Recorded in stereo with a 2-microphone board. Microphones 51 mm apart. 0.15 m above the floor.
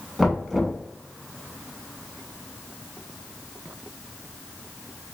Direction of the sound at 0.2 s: Centre (ahead or behind).